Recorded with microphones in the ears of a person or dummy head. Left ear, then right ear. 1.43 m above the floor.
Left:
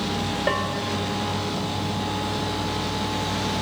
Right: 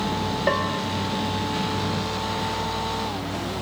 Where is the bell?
Centre (ahead or behind), 0.8 m.